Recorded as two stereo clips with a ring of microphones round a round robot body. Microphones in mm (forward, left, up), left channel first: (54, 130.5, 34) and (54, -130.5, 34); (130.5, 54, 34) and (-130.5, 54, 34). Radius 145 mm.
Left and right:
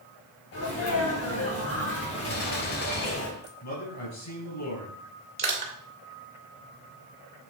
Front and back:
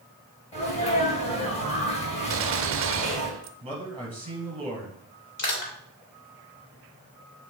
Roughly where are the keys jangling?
No keys jangling in this recording.